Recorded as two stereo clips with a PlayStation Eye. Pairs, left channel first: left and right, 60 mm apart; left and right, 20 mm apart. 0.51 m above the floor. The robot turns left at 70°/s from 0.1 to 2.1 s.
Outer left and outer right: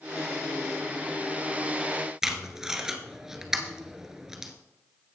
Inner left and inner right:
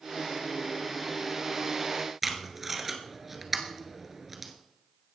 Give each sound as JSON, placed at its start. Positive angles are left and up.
{"t": 2.2, "sound": "tape being pulled", "side_deg": -10, "distance_m": 1.2}